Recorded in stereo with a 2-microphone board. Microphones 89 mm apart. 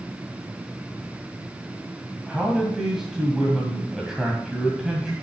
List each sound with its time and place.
2.3 s a man speaking: 5° right (ahead or behind), 2.0 m